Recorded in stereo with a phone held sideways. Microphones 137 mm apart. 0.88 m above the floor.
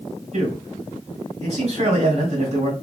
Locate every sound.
0.3 s a man speaking: 55° right (ahead or behind), 3 m